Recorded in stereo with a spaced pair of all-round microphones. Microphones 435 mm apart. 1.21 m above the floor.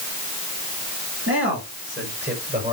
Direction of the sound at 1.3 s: 30° right (ahead or behind).